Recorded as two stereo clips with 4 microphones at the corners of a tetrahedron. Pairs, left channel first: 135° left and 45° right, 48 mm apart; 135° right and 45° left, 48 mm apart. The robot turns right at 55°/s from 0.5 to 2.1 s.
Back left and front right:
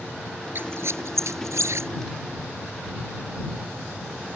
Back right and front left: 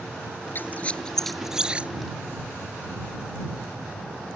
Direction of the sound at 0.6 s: 90° right.